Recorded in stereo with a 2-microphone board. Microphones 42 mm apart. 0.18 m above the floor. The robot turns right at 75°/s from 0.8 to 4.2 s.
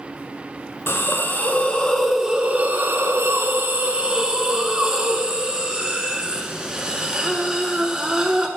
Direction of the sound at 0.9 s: 90° left.